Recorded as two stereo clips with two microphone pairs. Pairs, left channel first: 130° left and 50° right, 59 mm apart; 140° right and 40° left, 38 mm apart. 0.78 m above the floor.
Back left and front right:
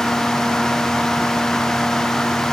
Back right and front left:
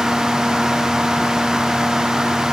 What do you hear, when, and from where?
Only background noise.